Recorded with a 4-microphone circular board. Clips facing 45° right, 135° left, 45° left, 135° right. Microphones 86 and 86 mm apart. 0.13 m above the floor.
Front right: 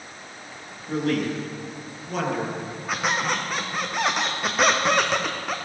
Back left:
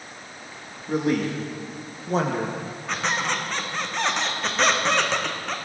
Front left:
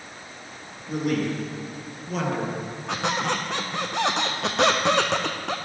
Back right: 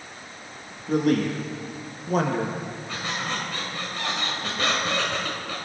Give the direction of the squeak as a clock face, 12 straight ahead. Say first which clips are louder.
Front right 1 dB, front left 7 dB; 11 o'clock.